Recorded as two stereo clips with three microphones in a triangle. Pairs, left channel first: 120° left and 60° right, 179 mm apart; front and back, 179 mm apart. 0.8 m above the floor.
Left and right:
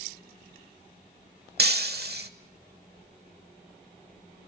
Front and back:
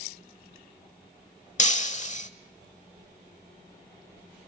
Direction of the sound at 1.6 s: 45° right.